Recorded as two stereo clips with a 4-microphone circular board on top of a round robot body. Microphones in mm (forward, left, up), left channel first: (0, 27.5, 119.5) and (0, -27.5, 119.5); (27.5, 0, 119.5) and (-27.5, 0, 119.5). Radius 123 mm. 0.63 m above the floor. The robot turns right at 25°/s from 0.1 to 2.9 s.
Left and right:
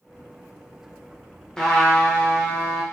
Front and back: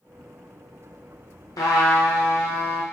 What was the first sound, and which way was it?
A trumpet, 10° left.